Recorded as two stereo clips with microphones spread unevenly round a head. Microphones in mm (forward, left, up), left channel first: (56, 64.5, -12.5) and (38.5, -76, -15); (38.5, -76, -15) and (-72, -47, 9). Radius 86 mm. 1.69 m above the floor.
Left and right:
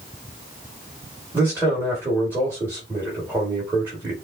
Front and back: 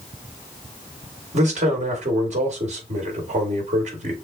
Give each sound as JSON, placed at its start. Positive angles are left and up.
{"t": 1.3, "sound": "a man speaking", "azimuth_deg": -175, "distance_m": 2.5}